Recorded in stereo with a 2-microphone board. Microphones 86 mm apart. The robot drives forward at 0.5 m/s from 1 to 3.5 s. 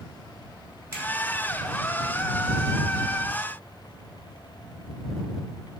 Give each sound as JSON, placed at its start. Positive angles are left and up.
{"t": 0.9, "sound": "a finger snap", "side_deg": -35, "distance_m": 1.5}